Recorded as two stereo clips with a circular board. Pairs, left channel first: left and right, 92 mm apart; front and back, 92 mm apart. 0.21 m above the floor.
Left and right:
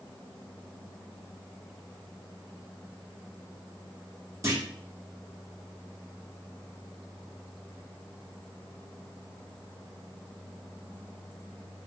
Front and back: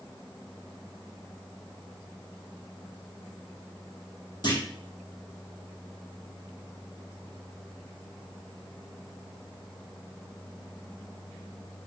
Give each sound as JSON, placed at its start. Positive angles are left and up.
{"t": 4.4, "sound": "a clunk", "azimuth_deg": -35, "distance_m": 1.3}